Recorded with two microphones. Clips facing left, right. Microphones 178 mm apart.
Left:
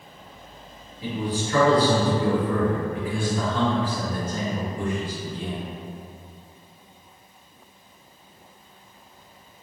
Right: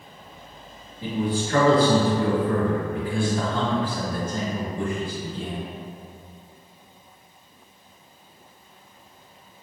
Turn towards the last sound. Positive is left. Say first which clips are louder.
# right 2 dB
turn(degrees=-30)  # may be behind; listen again after turning